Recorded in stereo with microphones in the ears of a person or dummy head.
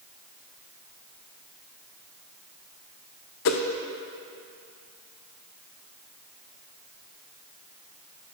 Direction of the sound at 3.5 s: 55° left (ahead or behind).